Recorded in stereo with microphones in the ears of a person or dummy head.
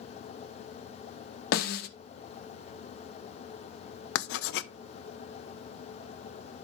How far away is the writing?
About 0.6 m.